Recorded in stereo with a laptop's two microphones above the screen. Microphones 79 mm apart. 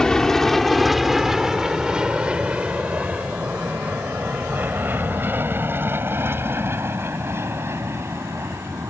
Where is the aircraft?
5° left (ahead or behind); by 8.9 s 35° right (ahead or behind).